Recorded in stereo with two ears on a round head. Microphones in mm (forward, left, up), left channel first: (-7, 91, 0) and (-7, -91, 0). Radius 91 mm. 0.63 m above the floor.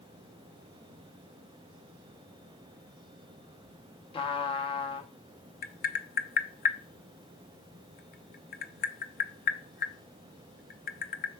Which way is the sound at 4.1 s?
25° left (ahead or behind).